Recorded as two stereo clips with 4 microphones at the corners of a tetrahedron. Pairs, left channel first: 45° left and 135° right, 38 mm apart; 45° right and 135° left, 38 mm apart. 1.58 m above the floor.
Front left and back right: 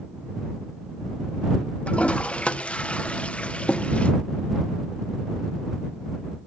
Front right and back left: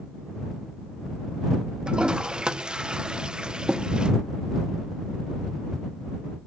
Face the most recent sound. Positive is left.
turn(degrees=85)